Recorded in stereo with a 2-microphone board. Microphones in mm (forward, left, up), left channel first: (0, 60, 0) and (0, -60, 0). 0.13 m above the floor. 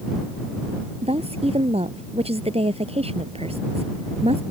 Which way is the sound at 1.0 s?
60° right (ahead or behind).